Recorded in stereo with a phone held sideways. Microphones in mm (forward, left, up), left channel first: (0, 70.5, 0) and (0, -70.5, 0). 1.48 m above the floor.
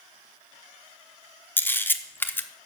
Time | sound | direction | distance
1.6 | a camera shutter | 15° left (ahead or behind) | 0.6 m